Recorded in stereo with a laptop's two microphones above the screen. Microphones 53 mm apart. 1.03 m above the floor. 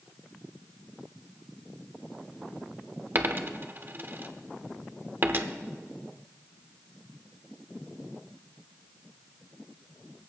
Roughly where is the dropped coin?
Right.